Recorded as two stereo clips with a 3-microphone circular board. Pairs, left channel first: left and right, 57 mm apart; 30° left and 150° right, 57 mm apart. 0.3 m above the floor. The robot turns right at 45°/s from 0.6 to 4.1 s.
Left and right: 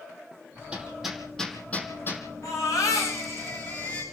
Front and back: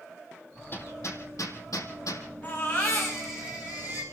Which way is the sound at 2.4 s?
90° left.